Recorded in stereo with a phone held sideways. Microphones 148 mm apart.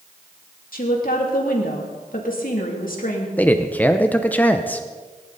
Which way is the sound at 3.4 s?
10° left (ahead or behind).